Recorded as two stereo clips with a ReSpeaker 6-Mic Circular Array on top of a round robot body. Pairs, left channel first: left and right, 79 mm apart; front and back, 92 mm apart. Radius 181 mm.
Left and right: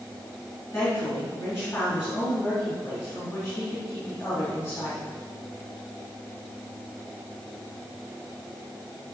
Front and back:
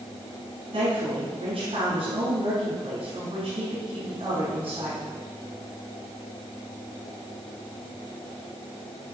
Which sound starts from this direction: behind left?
A woman speaking, at 0.7 s.